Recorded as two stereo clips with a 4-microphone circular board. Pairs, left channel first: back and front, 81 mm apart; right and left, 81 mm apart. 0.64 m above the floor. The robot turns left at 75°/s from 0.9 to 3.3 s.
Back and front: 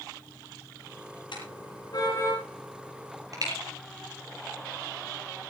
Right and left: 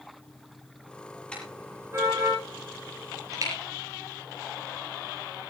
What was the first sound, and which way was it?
A car horn, 170° right.